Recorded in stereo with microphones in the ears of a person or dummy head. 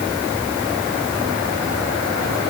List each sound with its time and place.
Only background noise.